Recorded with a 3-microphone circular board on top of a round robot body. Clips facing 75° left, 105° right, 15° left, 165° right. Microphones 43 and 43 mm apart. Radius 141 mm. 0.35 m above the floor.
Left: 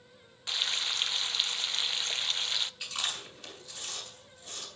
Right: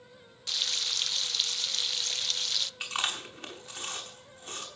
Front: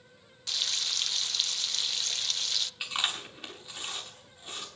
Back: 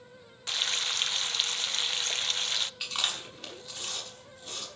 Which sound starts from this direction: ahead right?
Chewing, at 2.8 s.